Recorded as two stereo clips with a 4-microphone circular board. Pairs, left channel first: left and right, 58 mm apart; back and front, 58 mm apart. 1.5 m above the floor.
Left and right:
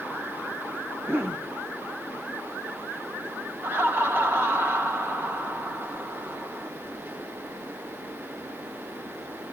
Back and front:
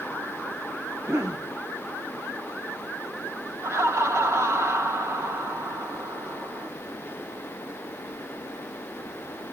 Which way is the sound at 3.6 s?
40° right.